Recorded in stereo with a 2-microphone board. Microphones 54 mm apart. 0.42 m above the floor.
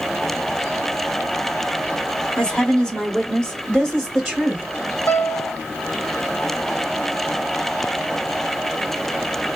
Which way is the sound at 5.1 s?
55° left (ahead or behind).